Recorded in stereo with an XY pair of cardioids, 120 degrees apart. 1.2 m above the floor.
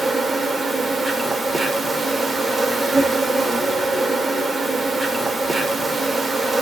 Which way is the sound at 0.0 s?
20° right.